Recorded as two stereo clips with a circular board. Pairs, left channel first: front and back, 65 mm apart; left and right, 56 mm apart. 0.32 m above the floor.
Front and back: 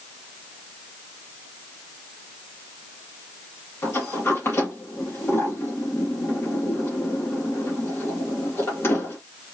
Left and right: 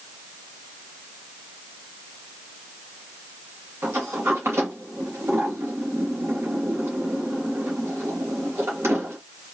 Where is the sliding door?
50° right, 2.5 m.